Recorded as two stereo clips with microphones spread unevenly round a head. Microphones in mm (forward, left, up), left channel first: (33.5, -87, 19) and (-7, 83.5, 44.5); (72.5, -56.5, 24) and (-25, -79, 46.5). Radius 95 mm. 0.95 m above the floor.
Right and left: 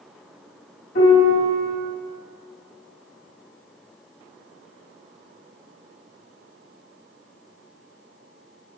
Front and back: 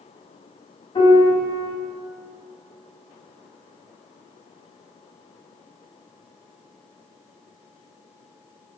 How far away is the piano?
About 2 m.